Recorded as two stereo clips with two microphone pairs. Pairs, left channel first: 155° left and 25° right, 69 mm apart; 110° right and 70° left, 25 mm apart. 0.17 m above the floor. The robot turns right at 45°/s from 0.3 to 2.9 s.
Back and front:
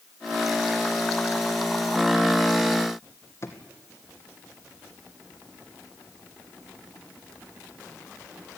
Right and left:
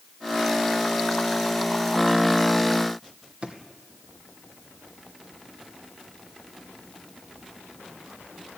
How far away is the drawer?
About 2.5 m.